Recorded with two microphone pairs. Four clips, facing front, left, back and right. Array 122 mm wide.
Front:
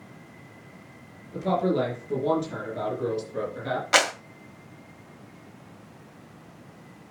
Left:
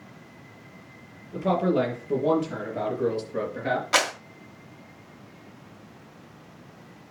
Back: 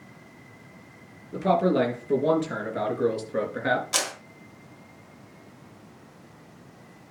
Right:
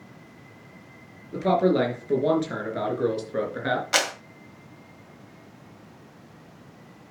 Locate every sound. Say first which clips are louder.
1.3 s a man speaking: right 2 dB, back 3 dB; 125° right, 4.5 m; by 3.8 s 140° right, 4 m
3.9 s a clap: left 2 dB, front 9 dB; 5° left, 1.4 m